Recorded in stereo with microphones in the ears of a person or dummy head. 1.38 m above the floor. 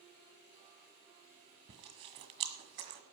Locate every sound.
1.7 s chewing: 40° right (ahead or behind), 1.6 m